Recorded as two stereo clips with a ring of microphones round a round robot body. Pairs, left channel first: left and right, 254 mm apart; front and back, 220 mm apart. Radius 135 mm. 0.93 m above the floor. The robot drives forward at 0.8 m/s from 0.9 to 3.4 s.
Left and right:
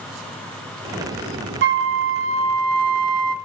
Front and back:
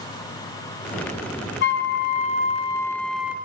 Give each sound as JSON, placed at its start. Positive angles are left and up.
{"t": 1.6, "sound": "a flute", "azimuth_deg": -45, "distance_m": 1.8}